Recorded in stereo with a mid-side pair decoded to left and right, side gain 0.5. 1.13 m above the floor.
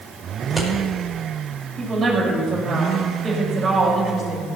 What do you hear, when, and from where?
0.4 s scissors: 15° right, 5.5 m
1.8 s a woman speaking: 40° right, 6.5 m